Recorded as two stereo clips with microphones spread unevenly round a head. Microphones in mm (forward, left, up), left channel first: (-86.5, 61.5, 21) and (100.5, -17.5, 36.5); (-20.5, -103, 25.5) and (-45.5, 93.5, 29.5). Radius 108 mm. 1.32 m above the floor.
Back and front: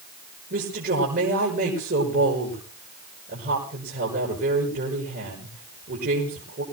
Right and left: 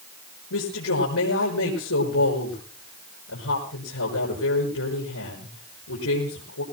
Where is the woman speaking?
70° right, 6 m.